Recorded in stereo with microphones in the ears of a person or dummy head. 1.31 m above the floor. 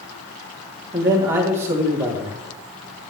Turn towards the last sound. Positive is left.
turn(degrees=-15)  # may be behind; listen again after turning